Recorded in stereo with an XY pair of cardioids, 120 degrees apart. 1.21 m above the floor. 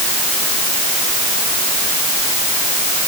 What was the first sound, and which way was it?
Only background noise.